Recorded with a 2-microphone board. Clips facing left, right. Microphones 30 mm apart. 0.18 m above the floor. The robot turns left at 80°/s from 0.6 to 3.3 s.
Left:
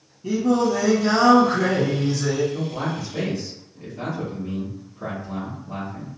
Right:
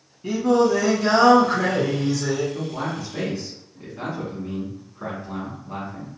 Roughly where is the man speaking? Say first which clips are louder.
Left 1 dB; ahead.